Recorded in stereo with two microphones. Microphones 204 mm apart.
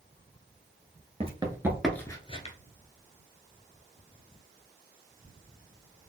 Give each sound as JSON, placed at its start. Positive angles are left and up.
{"t": 1.2, "sound": "running footsteps", "side_deg": -30, "distance_m": 1.0}